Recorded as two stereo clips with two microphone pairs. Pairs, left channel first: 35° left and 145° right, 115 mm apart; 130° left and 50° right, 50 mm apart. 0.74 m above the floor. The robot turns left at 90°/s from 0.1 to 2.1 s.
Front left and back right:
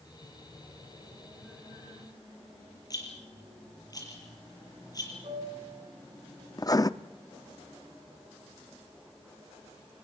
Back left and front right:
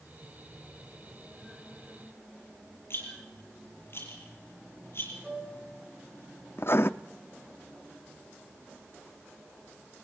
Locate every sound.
2.9 s a rattle: 90° left, 6.5 m
5.2 s a piano: 130° right, 9 m
6.6 s writing: 90° left, 0.6 m